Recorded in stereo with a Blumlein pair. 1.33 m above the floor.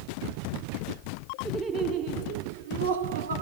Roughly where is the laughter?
Ahead.